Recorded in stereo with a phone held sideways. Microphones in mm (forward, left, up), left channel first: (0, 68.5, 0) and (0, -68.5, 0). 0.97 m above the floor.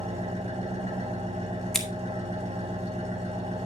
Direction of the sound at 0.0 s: 50° right (ahead or behind).